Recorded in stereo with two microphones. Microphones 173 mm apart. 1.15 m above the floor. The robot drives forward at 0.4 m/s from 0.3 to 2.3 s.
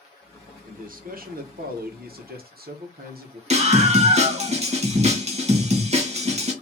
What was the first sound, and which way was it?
A man speaking, 50° right (ahead or behind).